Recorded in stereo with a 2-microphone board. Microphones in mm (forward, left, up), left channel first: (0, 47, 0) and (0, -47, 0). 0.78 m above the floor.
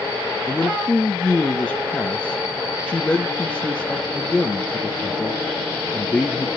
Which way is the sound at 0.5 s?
10° left (ahead or behind).